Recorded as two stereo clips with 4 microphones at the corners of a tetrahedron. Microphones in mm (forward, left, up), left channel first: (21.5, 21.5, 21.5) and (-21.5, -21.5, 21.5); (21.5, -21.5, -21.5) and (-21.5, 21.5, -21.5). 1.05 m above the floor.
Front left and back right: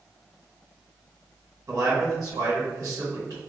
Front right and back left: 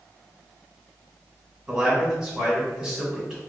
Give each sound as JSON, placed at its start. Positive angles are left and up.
{"t": 1.7, "sound": "a man speaking", "azimuth_deg": -145, "distance_m": 1.9}